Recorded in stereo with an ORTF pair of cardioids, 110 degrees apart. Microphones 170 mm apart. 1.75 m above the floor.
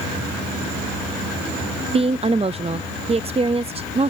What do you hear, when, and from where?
1.9 s a woman speaking: 35° right